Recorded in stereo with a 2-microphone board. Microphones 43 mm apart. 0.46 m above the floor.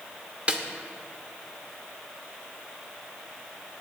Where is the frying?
No frying in this recording.